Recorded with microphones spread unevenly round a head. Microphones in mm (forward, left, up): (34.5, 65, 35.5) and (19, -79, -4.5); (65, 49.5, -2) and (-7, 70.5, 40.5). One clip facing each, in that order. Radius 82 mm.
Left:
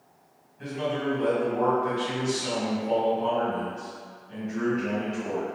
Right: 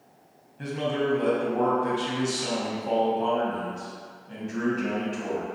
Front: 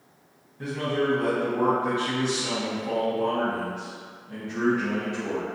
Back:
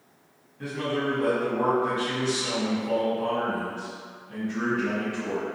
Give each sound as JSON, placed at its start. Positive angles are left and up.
{"t": 0.6, "sound": "a man speaking", "azimuth_deg": -80, "distance_m": 1.0}